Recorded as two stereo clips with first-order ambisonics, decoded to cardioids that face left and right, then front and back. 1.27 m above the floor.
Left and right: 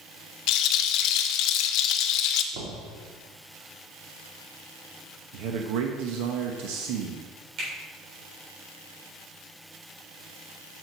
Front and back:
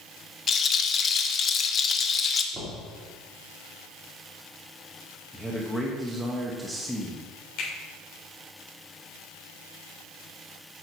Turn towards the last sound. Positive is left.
turn(degrees=-35)